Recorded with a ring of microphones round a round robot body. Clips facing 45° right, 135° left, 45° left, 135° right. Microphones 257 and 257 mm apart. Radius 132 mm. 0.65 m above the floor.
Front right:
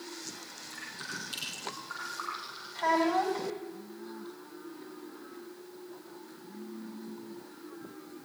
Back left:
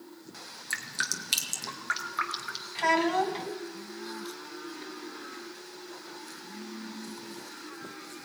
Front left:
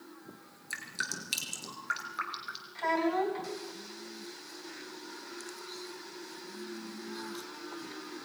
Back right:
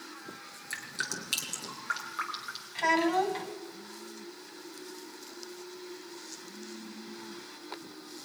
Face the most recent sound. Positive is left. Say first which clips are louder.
# back left 1 dB, back right 2 dB
turn(degrees=180)